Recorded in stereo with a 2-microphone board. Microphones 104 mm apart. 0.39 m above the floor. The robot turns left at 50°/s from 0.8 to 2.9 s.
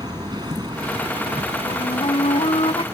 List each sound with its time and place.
0.0 s an aircraft: 45° right; by 2.9 s 150° right
1.7 s a flute: 130° left; by 2.8 s 70° left